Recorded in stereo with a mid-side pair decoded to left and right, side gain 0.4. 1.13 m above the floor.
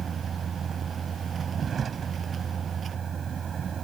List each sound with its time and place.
0.0 s a vehicle: 55° right